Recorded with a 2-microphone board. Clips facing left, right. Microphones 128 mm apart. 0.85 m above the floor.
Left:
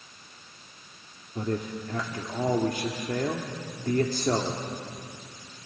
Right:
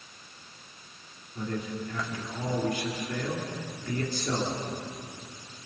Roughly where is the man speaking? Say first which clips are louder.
Left 3 dB; left.